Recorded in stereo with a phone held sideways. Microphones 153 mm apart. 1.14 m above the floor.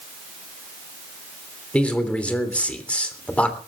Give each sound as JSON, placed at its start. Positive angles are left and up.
{"t": 1.7, "sound": "a man speaking", "side_deg": 10, "distance_m": 3.0}